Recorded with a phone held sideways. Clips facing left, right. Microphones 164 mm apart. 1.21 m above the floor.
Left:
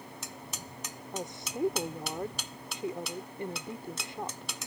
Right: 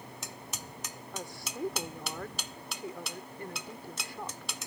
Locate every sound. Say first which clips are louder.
1.1 s a woman speaking: left 5 dB; 25° left (ahead or behind)